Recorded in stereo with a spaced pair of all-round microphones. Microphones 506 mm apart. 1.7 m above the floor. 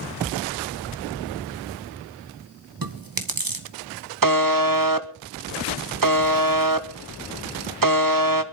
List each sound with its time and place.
2.8 s chewing: 40° right (ahead or behind), 1.3 m
4.2 s a buzzer: 40° right (ahead or behind), 0.9 m